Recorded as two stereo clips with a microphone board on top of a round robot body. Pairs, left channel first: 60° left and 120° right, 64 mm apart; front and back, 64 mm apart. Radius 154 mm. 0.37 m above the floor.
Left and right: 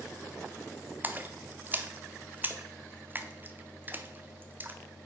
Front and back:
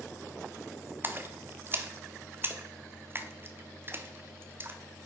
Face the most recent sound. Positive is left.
turn(degrees=-160)